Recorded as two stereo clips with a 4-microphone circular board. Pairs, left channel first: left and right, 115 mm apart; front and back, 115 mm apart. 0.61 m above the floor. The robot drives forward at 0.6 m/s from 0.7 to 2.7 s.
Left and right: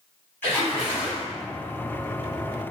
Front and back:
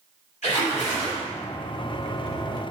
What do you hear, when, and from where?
0.4 s a splash: 15° left, 1.3 m; by 1.2 s 20° left, 1.0 m